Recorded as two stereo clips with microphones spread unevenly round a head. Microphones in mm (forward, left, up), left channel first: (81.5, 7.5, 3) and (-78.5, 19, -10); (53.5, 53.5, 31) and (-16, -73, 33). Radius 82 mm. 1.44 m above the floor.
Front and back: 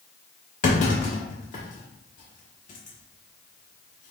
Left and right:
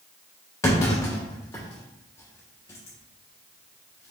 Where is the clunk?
5° right, 1.3 m.